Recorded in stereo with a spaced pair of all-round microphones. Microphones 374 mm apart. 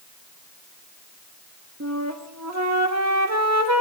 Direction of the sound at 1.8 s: 45° right (ahead or behind).